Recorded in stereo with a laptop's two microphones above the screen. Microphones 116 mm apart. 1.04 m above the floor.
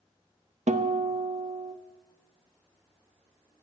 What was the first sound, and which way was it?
A guitar, 80° right.